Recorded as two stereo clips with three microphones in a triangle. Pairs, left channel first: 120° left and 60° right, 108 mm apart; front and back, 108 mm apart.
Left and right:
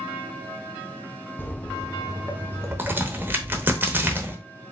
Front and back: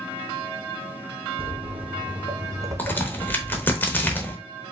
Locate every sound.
1.4 s footsteps: 175° right, 0.7 m; by 3.8 s 105° right, 1.4 m
2.8 s a crack: 35° right, 1.0 m